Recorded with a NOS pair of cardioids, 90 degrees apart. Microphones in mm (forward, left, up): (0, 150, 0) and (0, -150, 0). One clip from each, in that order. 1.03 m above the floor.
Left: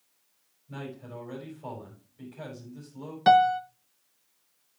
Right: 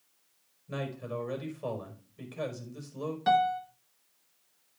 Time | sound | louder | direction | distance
0.7 | a man speaking | right 4 dB | 65° right | 4.5 m
3.3 | a piano | left 6 dB | 50° left | 0.9 m